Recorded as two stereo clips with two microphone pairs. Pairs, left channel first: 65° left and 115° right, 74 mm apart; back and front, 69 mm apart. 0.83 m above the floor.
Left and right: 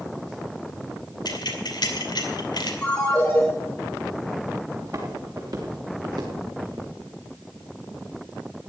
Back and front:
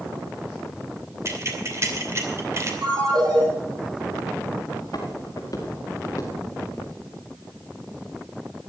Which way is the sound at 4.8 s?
155° right.